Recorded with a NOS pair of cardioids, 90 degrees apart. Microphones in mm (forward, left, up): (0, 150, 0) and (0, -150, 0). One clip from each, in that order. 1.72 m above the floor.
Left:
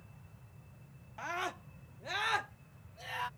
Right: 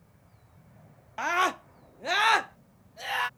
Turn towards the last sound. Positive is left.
turn(degrees=-70)